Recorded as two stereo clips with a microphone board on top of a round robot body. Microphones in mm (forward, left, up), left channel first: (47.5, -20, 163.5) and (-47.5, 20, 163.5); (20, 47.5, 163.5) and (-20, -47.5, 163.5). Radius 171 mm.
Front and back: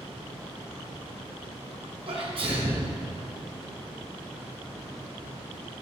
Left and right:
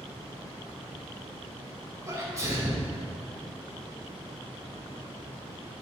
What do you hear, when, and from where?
2.1 s a sneeze: 170° right, 3 m